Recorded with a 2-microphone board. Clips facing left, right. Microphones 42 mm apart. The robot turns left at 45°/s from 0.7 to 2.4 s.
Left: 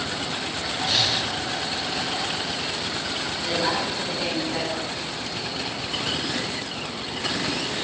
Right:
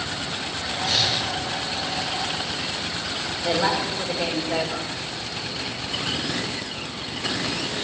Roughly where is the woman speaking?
Right.